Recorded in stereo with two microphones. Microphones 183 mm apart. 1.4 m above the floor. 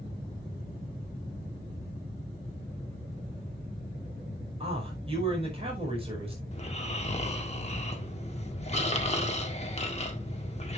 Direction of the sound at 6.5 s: 35° left (ahead or behind).